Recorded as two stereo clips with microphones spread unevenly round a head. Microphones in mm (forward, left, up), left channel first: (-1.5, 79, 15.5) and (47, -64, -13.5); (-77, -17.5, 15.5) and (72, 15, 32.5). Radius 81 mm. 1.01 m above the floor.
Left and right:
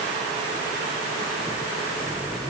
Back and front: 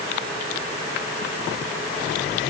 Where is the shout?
I don't hear a shout.